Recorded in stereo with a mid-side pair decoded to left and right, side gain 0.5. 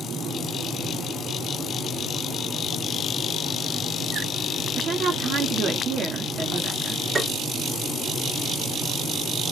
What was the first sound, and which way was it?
A woman speaking, 50° right.